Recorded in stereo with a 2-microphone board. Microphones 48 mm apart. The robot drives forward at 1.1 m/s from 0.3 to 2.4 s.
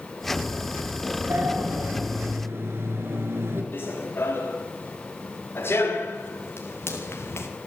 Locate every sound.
1.3 s a sliding door: 60° right (ahead or behind), 3 m; by 3.6 s 55° right (ahead or behind), 3.5 m
3.7 s running footsteps: 45° left (ahead or behind), 7 m; by 7.5 s 60° left (ahead or behind), 4.5 m